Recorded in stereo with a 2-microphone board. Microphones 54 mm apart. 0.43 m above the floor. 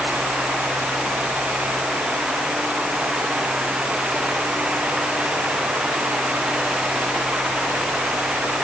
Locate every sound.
Only background noise.